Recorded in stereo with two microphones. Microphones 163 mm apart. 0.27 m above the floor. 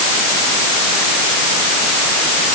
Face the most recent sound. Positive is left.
No sound to turn to.